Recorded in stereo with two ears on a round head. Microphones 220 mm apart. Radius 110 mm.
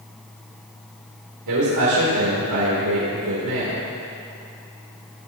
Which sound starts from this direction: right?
A man speaking, at 1.5 s.